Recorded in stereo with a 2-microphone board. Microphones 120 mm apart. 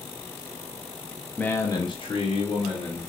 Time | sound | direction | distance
1.4 | a man speaking | 10° left (ahead or behind) | 0.6 m